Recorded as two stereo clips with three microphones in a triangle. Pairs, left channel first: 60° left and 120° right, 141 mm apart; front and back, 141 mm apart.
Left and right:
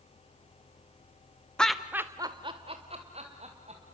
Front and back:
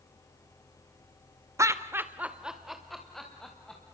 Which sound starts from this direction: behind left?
Laughter, at 1.6 s.